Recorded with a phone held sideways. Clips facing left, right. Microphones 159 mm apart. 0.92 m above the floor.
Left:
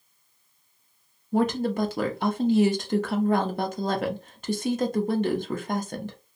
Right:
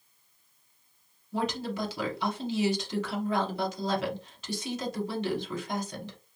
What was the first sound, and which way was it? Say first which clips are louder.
A woman speaking: left 8 dB; 50° left (ahead or behind).